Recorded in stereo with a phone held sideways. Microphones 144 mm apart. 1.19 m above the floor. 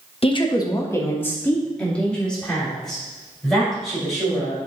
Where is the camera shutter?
I don't hear a camera shutter.